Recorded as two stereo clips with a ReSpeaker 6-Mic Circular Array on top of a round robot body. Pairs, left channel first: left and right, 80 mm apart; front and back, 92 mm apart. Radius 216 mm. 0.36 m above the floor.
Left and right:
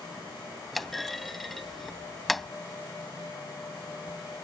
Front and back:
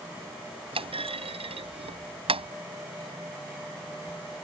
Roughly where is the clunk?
Behind.